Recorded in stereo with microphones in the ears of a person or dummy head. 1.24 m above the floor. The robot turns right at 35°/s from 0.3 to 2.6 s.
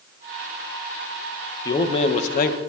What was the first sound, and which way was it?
A man speaking, 20° left.